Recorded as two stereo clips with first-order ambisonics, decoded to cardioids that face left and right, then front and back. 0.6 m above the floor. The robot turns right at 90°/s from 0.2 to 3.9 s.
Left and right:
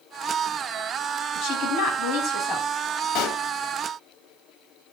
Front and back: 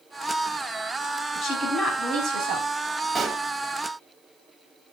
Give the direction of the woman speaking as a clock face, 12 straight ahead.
10 o'clock.